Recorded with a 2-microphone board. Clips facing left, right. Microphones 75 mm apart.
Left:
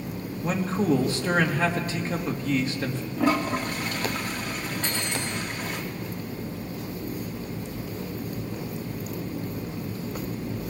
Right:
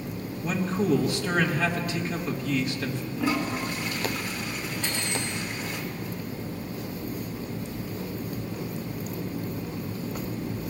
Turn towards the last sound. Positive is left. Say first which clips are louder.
# even
turn(degrees=40)  # may be behind; listen again after turning